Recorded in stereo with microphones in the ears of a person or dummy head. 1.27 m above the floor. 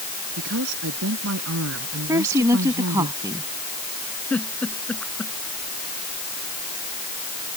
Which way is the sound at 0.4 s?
75° right (ahead or behind).